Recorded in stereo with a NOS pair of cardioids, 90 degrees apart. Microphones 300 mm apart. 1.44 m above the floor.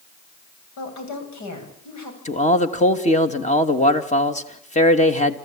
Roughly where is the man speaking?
Ahead left.